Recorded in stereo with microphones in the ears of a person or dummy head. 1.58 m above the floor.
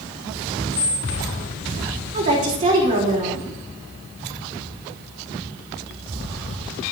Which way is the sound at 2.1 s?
35° right (ahead or behind).